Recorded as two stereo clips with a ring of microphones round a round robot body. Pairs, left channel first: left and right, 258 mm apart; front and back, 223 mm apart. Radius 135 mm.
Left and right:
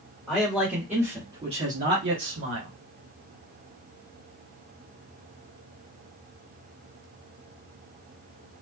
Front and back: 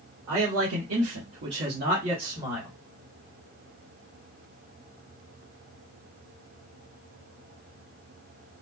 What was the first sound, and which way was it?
A man speaking, 175° left.